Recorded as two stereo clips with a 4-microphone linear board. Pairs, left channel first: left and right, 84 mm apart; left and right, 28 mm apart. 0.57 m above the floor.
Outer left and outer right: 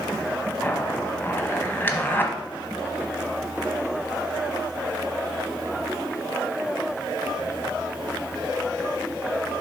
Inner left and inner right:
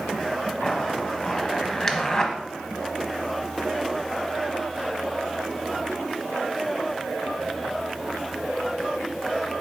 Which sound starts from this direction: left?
A zipper, at 0.6 s.